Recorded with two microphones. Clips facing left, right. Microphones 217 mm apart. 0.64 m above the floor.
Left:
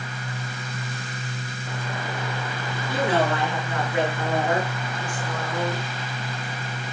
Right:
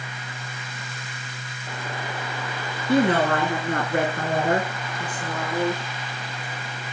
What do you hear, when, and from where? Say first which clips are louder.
2.9 s a woman speaking: right 4 dB; 60° right (ahead or behind), 8.5 m; by 5.8 s 30° right (ahead or behind), 8.5 m